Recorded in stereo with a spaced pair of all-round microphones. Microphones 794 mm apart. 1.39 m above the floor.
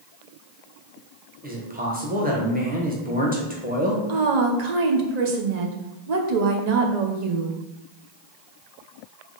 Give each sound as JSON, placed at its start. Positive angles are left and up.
{"t": 1.4, "sound": "a man speaking", "side_deg": -10, "distance_m": 0.9}
{"t": 4.1, "sound": "a woman speaking", "side_deg": -60, "distance_m": 0.8}